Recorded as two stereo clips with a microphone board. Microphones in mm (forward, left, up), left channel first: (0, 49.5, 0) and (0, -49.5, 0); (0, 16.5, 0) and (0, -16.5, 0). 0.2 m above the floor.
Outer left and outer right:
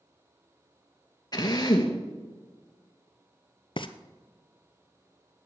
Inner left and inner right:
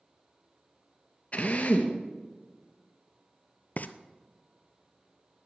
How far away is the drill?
About 1.6 m.